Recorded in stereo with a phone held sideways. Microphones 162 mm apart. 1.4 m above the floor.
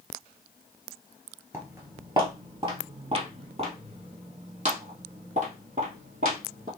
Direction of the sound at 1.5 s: 15° right (ahead or behind).